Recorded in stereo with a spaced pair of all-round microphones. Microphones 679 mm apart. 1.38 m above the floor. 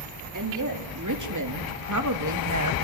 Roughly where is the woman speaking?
Right.